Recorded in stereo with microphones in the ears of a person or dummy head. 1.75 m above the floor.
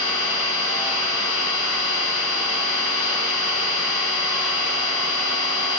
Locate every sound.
0.0 s an engine running: 35° right (ahead or behind), 4 m